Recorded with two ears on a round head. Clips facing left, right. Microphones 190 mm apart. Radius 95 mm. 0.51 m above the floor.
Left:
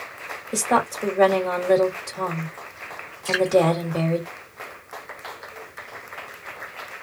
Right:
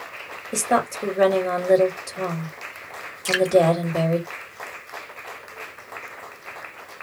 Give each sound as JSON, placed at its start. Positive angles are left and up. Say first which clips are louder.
{"t": 0.5, "sound": "a woman speaking", "louder": "right 1 dB", "side_deg": -10, "distance_m": 1.8}
{"t": 3.2, "sound": "dripping", "louder": "right 1 dB", "side_deg": -45, "distance_m": 1.3}